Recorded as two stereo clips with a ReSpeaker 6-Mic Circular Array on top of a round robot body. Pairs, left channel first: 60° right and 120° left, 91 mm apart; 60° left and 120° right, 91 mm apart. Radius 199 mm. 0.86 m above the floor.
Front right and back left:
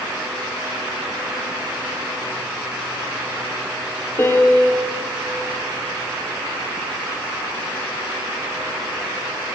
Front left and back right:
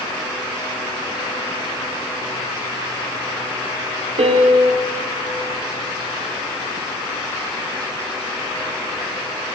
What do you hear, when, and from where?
4.2 s a piano: 125° right, 0.9 m